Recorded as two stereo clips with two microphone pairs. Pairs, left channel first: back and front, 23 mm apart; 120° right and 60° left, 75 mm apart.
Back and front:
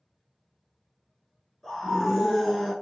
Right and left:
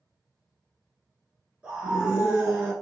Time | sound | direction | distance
1.6 | a scream | 110° left | 1.1 m